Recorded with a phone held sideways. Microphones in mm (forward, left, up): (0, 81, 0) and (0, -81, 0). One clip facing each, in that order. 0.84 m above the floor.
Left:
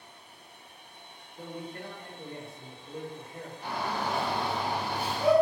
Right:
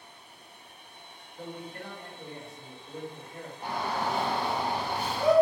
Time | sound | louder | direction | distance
1.4 | a man speaking | left 1 dB | 25° left (ahead or behind) | 1.4 m
3.6 | a shout | right 1 dB | 45° right (ahead or behind) | 0.9 m